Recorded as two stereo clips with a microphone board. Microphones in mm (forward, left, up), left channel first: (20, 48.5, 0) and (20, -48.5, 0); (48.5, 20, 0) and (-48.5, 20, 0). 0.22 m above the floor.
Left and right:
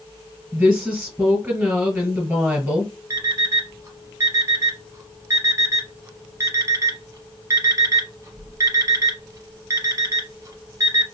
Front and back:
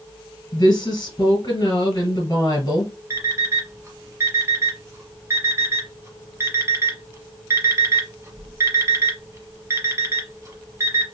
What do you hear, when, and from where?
0.5 s a woman speaking: 20° right, 1.8 m
3.1 s an alarm clock: 130° right, 1.0 m